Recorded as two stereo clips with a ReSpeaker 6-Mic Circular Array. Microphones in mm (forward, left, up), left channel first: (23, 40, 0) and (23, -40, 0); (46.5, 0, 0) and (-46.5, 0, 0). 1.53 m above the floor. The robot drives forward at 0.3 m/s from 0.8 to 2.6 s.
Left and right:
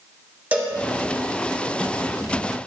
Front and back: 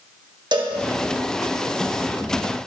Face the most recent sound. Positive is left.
turn(degrees=-165)